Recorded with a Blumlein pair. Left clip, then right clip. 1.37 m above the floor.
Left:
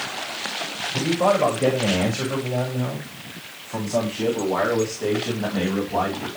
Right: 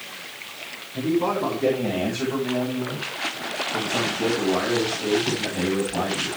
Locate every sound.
0.9 s a man speaking: 40° left, 7.5 m; by 6.3 s 55° left, 12.5 m